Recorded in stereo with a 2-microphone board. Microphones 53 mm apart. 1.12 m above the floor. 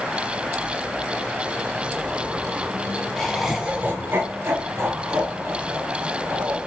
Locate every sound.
3.2 s laughter: 10° left (ahead or behind), 0.5 m; by 6.6 s 55° right (ahead or behind), 2 m